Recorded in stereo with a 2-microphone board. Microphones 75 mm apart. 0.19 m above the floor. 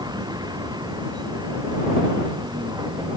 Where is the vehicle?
65° right (ahead or behind); by 3.2 s 70° right (ahead or behind).